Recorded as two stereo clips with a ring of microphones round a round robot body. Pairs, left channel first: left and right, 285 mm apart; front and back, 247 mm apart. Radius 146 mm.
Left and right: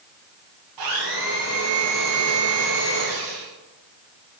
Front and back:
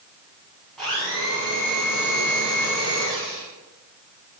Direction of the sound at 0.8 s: 90° right.